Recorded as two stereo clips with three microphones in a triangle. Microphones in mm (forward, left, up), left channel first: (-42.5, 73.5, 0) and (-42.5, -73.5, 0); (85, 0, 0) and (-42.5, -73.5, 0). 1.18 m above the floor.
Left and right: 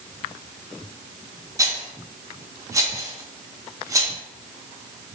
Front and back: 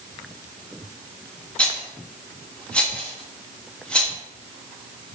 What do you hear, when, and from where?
1.6 s a rattle: 45° right, 0.6 m